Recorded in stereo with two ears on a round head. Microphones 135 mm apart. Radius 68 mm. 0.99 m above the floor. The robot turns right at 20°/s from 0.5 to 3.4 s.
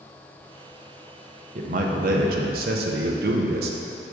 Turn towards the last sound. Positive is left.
turn(degrees=-85)